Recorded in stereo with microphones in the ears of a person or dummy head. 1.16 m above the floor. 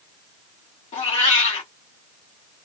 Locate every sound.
0.9 s a cat meowing: 35° left (ahead or behind), 1.1 m